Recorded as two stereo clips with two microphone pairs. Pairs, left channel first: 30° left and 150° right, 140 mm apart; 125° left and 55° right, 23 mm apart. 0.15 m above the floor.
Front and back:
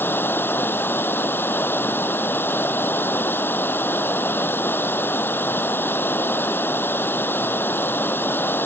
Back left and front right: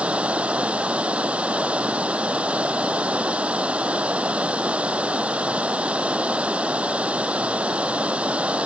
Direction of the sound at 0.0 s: 45° right.